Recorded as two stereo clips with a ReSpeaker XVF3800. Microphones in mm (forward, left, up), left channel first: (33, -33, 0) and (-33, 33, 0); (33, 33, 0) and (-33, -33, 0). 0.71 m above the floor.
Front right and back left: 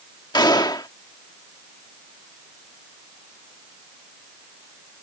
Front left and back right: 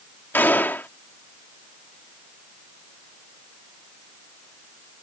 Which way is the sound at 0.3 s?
20° right.